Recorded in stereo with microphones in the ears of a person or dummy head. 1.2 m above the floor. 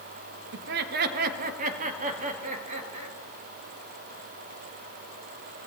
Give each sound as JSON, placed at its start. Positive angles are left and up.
{"t": 0.5, "sound": "laughter", "side_deg": -60, "distance_m": 1.0}